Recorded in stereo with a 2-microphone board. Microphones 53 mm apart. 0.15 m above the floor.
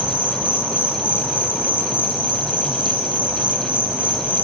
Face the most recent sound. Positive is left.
turn(degrees=-25)  # may be behind; listen again after turning